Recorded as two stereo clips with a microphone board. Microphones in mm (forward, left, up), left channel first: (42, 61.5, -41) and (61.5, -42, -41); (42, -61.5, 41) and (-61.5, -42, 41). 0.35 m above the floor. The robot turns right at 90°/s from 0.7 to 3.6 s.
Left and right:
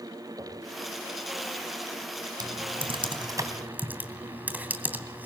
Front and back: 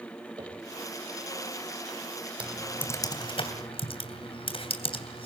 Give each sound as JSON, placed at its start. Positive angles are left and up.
{"t": 0.4, "sound": "knocking", "azimuth_deg": -135, "distance_m": 8.0}
{"t": 2.4, "sound": "typing on a keyboard", "azimuth_deg": -115, "distance_m": 3.0}